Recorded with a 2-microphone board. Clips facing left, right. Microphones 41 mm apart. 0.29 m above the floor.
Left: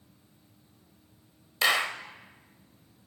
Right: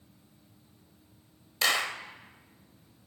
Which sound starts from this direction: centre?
A clap, at 1.6 s.